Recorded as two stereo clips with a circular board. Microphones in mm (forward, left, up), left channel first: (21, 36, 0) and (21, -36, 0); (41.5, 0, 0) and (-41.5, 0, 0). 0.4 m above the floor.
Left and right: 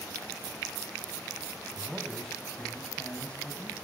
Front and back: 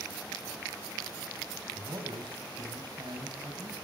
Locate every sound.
1.8 s a man speaking: 175° right, 3 m; by 3.8 s 155° left, 3 m